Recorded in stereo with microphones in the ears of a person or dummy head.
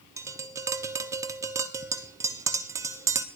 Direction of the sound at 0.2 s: 15° right (ahead or behind).